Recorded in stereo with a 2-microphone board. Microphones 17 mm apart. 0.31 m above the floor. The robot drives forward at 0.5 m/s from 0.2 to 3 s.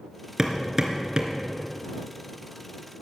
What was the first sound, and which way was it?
Hammering, 35° right (ahead or behind).